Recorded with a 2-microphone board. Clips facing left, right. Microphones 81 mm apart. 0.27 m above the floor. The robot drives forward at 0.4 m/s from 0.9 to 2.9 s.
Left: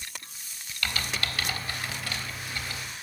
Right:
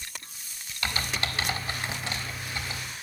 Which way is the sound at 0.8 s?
25° right (ahead or behind).